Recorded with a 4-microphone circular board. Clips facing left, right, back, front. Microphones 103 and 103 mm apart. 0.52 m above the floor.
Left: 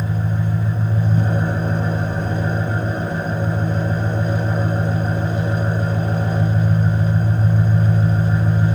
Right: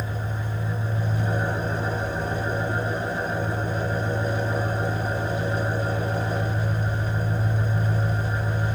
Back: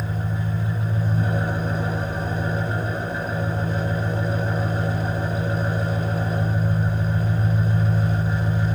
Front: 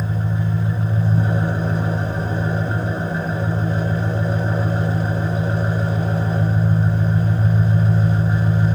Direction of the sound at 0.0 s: 60° left.